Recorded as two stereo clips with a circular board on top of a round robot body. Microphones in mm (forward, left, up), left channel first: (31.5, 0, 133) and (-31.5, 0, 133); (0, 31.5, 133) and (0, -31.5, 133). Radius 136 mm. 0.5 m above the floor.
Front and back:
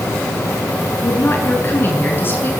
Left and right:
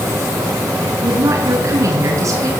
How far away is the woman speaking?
About 8 m.